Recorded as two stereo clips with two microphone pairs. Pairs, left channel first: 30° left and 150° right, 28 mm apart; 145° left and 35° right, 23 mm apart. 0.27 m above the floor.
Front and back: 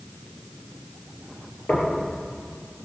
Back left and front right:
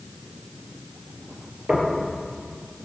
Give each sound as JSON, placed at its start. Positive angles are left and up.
{"t": 1.7, "sound": "knocking", "azimuth_deg": 5, "distance_m": 4.0}